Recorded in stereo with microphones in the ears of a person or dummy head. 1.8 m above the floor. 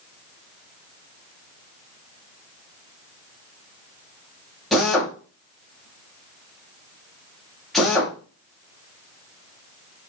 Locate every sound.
4.7 s a drill: centre (ahead or behind), 2.5 m